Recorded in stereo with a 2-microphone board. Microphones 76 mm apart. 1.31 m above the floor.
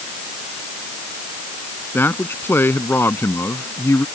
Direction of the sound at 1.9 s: 25° left (ahead or behind).